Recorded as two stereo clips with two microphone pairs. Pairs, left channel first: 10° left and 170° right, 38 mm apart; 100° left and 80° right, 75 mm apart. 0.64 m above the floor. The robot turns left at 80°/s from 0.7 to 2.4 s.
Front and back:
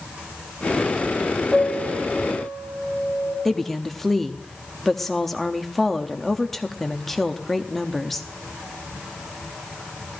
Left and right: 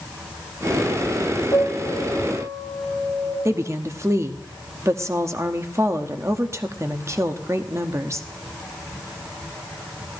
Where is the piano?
80° left, 4 m; by 3.4 s 10° left, 4 m.